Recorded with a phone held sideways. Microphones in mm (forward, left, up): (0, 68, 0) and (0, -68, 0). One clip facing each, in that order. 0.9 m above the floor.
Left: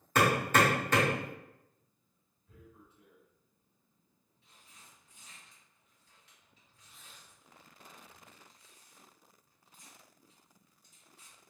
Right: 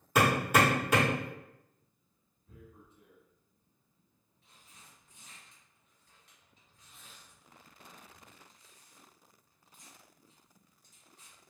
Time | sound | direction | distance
0.1 | hammering | 10° right (ahead or behind) | 1.9 m
2.5 | tearing paper | 45° right (ahead or behind) | 2.0 m